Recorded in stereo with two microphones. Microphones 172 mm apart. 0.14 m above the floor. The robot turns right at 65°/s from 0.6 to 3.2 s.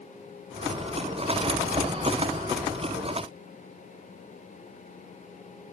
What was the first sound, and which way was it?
Only background noise.